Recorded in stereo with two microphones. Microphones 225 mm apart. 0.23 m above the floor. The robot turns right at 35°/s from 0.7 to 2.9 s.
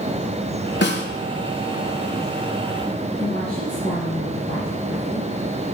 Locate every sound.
0.8 s a snare drum: 55° left (ahead or behind), 3 m; by 1.1 s 50° left (ahead or behind), 3 m
3.2 s a woman speaking: 40° right (ahead or behind), 6 m